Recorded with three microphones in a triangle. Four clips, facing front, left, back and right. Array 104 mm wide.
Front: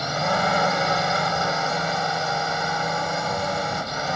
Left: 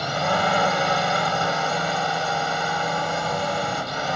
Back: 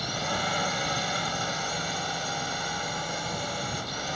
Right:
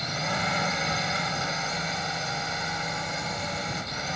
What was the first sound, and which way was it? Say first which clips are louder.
A drone: left 8 dB, front 8 dB; 50° left.